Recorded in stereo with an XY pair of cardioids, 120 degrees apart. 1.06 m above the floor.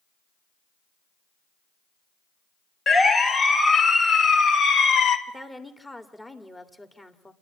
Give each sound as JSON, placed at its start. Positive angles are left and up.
{"t": 2.9, "sound": "a siren", "azimuth_deg": 30, "distance_m": 2.5}
{"t": 5.3, "sound": "a woman speaking", "azimuth_deg": 10, "distance_m": 2.0}